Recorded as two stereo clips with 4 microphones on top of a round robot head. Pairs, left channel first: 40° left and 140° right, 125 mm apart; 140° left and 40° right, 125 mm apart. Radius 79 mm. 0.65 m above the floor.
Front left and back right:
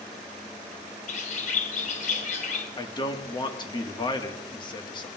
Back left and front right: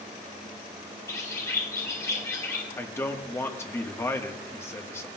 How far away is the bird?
About 1.5 m.